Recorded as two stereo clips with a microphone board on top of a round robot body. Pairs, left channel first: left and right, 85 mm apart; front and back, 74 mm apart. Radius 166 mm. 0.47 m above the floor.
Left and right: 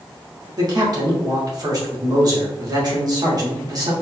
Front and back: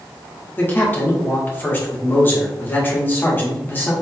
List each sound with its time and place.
0.6 s a man speaking: 60° right, 2 m